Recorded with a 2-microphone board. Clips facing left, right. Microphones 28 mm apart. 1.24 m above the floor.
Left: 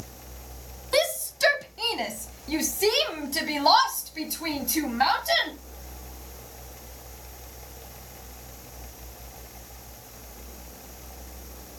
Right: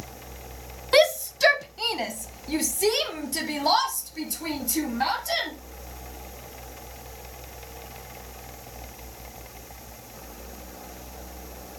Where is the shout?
30° right (ahead or behind), 1.0 m; by 5.5 s 25° left (ahead or behind), 3 m.